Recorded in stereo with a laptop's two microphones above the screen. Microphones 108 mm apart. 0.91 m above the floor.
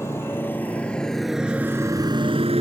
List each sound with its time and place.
0.0 s a motorcycle: 25° left (ahead or behind); by 2.6 s 70° right (ahead or behind)